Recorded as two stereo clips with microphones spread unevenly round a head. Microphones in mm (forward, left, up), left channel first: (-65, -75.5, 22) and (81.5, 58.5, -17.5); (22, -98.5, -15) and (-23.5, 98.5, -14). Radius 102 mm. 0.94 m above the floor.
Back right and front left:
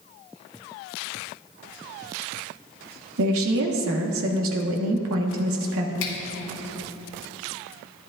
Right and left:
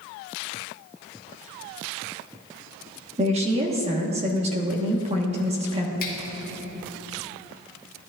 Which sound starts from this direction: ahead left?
A woman speaking, at 3.2 s.